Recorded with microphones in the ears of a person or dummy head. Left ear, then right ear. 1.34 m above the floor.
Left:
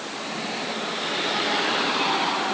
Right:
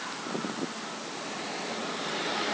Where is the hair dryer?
I don't hear a hair dryer.